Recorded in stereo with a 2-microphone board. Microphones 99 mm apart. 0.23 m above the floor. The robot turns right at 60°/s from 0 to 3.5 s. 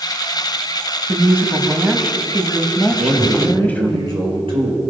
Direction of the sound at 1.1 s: 25° right (ahead or behind).